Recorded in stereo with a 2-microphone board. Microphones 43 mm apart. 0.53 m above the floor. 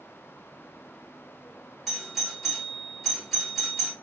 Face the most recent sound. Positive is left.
turn(degrees=0)  # may be behind; listen again after turning